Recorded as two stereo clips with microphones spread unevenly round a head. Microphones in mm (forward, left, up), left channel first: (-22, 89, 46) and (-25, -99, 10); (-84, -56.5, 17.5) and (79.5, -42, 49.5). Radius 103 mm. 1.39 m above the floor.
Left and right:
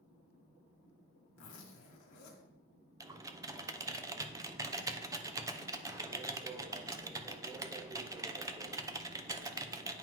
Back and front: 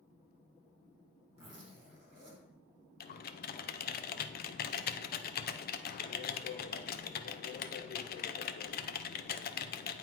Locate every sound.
1.4 s a zipper: 70° left, 2.0 m
3.0 s typing on a keyboard: 160° right, 0.6 m